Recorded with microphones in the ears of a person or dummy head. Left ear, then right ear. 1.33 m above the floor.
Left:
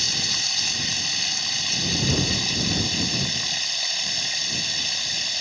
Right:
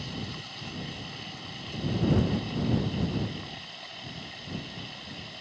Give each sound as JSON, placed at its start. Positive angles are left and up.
{"t": 0.0, "sound": "running water", "side_deg": 75}